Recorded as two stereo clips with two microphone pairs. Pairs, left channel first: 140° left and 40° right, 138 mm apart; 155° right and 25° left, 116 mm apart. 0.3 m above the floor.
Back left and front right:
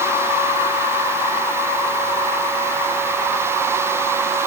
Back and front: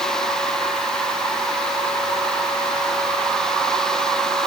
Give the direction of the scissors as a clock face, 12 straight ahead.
No scissors in this recording.